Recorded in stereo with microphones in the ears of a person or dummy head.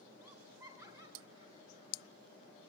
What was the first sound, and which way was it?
Laughter, 15° right (ahead or behind).